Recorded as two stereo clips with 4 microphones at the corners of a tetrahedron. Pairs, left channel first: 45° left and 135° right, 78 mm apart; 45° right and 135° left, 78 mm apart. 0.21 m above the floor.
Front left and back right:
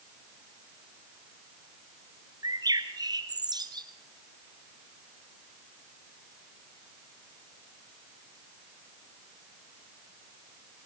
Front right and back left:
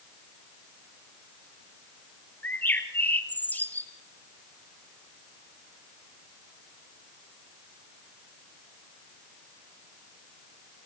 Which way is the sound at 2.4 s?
115° right.